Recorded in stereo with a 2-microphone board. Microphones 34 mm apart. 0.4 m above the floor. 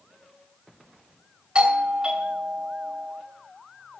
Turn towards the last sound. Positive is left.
turn(degrees=-25)  # may be behind; listen again after turning